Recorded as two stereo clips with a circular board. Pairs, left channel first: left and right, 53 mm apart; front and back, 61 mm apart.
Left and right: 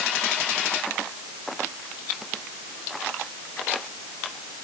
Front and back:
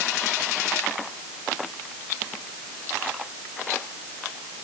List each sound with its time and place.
Only background noise.